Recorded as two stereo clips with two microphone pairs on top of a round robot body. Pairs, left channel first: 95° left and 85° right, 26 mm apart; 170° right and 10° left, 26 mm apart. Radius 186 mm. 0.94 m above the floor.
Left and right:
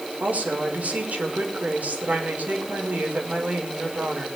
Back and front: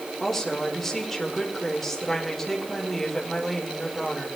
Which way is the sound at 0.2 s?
90° right.